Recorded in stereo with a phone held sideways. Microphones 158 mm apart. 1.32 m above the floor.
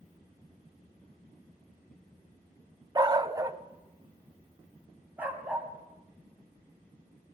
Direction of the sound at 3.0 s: 25° right (ahead or behind).